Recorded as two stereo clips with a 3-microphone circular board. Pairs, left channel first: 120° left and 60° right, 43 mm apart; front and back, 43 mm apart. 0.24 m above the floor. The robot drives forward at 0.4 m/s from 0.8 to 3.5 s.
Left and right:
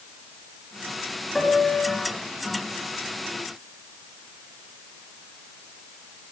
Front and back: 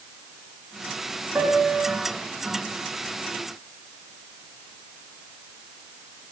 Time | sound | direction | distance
1.4 | a piano | 150° right | 3.5 m